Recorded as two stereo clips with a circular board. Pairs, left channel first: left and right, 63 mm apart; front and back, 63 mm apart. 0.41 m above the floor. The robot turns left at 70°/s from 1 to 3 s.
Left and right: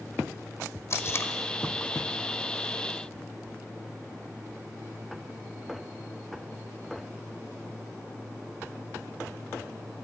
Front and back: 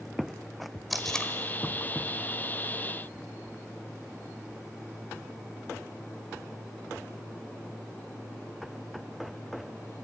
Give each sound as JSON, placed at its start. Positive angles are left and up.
{"t": 0.9, "sound": "tape being pulled", "azimuth_deg": 90, "distance_m": 1.5}